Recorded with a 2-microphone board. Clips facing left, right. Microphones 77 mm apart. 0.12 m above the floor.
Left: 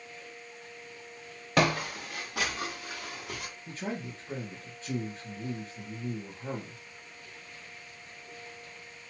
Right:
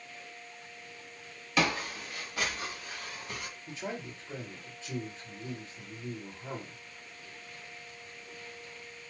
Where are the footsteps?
55° left (ahead or behind), 1.2 m; by 3.5 s 85° left, 2.5 m.